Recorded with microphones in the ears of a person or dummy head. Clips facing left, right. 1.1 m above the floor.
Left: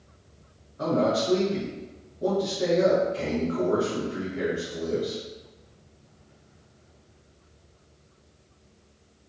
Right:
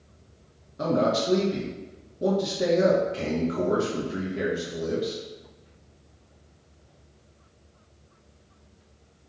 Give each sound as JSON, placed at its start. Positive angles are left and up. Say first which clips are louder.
{"t": 0.8, "sound": "a man speaking", "louder": "even", "side_deg": -35, "distance_m": 0.8}